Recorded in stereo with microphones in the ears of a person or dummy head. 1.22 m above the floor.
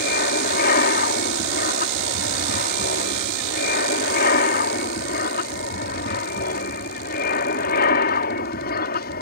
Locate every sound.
0.0 s an aircraft: 45° left (ahead or behind)